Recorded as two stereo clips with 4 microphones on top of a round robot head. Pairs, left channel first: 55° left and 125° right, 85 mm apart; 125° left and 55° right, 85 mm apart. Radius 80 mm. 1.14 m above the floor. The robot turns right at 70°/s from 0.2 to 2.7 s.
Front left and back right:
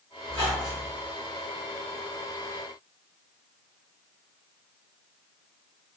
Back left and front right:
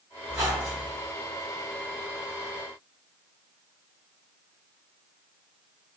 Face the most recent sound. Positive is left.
turn(degrees=30)